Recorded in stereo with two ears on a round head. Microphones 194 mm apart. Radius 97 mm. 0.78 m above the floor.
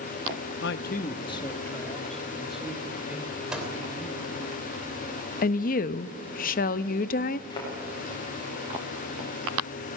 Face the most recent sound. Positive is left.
turn(degrees=20)  # may be behind; listen again after turning